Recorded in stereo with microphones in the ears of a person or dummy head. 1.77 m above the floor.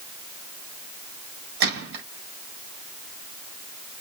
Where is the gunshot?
65° right (ahead or behind), 4.5 m.